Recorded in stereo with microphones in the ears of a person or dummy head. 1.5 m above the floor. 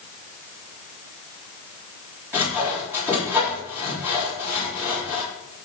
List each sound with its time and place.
2.3 s sawing: 10° right (ahead or behind), 4 m